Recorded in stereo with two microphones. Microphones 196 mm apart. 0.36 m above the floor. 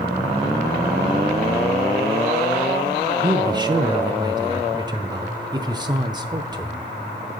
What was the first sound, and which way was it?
A man speaking, 25° right (ahead or behind).